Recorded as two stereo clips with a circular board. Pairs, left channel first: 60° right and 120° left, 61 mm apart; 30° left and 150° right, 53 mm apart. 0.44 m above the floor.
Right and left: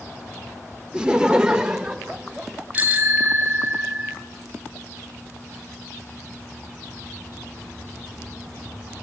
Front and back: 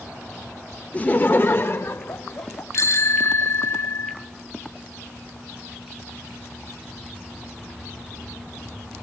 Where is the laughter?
55° left, 0.8 m; by 2.6 s 40° left, 1.7 m.